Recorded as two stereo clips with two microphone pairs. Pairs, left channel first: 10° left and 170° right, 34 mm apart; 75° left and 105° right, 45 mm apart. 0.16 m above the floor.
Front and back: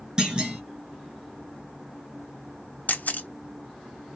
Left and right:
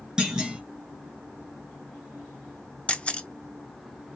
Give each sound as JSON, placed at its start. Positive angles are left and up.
{"t": 0.2, "sound": "a clunk", "azimuth_deg": -150, "distance_m": 1.0}
{"t": 2.9, "sound": "a camera shutter", "azimuth_deg": 20, "distance_m": 0.6}